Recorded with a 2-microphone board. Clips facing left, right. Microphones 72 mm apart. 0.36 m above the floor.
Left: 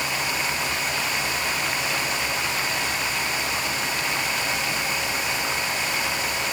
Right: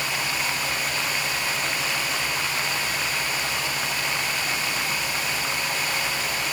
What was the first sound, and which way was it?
Only background noise.